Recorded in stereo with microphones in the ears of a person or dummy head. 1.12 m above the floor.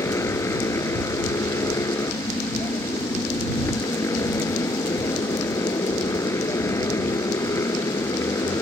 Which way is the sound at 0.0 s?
15° left (ahead or behind).